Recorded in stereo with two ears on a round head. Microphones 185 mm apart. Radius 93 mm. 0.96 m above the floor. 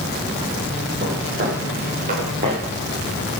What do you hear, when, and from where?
1.0 s footsteps: 45° right (ahead or behind), 7 m; by 2.6 s 35° right (ahead or behind), 7 m